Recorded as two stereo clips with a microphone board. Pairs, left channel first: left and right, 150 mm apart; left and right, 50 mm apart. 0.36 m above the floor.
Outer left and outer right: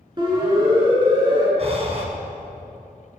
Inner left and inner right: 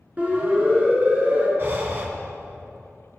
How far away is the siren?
About 5.5 m.